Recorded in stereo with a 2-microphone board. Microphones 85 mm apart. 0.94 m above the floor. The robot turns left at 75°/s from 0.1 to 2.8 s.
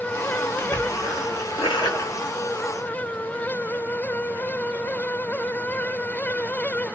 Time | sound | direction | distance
0.6 | a splash | 150° left | 1.4 m